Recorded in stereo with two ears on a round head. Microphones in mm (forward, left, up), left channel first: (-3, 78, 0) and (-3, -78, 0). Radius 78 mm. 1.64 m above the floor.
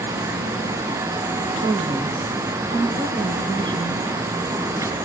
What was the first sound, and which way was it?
A woman speaking, 25° right (ahead or behind).